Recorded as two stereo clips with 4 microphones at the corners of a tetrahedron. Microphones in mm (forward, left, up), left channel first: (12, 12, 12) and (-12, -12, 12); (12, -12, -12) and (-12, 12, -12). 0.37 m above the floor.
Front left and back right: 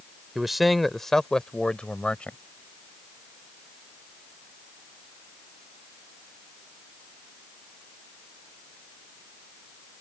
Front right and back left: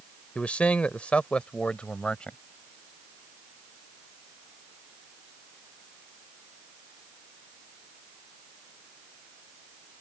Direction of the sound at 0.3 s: 60° right.